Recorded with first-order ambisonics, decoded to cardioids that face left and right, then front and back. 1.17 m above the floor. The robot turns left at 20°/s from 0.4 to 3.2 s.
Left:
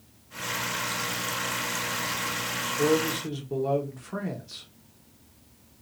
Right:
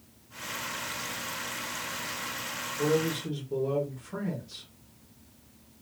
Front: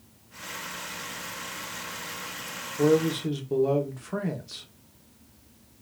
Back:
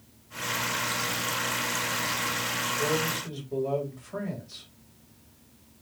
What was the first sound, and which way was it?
A man speaking, 30° left.